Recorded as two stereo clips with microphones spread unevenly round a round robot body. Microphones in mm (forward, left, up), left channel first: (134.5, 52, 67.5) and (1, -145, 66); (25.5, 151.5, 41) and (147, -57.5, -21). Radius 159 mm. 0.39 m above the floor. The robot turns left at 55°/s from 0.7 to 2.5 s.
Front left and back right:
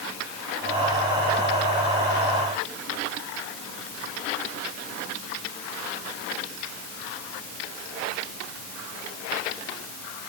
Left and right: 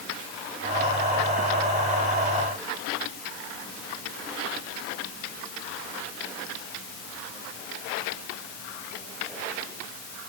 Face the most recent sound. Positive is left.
No sound to turn to.